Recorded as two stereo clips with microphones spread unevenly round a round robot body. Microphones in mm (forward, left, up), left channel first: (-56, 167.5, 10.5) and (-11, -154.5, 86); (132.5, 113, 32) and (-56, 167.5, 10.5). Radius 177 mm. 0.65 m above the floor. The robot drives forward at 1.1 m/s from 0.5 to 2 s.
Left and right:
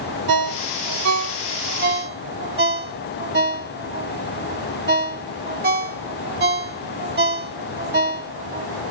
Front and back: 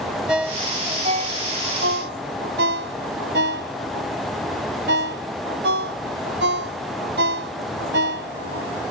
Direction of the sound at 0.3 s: 110° right.